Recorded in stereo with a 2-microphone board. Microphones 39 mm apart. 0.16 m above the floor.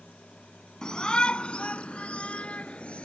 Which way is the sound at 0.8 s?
20° left (ahead or behind).